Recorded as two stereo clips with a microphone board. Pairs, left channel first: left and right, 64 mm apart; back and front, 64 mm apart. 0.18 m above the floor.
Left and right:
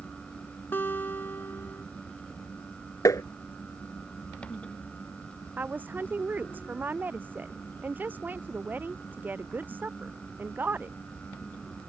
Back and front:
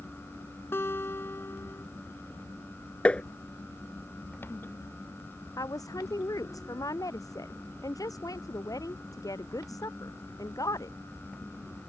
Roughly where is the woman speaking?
Behind right.